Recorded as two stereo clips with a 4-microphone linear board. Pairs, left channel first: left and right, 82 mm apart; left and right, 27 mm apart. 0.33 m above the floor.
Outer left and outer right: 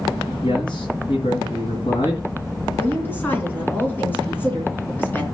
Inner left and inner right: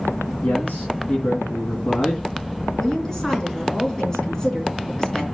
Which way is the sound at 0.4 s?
70° left (ahead or behind).